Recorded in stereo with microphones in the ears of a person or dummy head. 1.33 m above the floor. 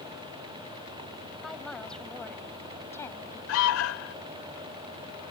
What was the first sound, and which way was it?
A woman speaking, centre (ahead or behind).